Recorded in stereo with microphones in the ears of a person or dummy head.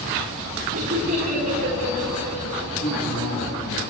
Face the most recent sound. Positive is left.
turn(degrees=55)  # may be behind; listen again after turning